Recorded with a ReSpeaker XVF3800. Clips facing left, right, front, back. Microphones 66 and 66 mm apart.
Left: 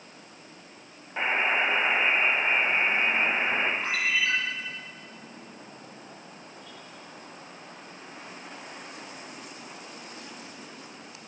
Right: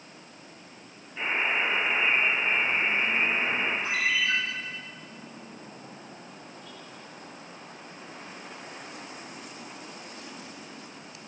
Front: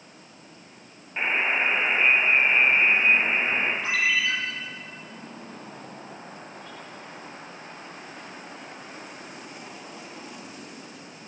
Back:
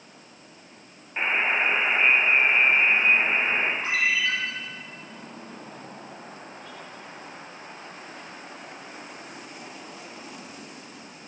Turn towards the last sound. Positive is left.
turn(degrees=120)